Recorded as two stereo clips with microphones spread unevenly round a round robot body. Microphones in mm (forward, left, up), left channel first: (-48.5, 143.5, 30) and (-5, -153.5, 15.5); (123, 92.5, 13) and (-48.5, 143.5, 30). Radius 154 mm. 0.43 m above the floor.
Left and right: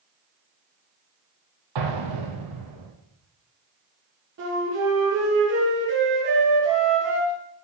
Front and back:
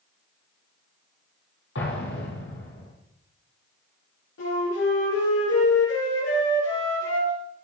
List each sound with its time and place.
1.8 s an explosion: 65° right, 4 m
4.4 s a flute: 30° right, 10 m